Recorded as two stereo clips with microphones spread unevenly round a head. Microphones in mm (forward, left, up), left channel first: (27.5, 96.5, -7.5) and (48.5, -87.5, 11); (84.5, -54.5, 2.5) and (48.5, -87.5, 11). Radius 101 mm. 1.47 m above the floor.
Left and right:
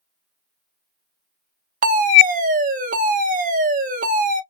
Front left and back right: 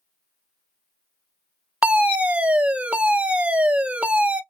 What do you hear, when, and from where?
1.8 s a fire alarm: 75° right, 0.7 m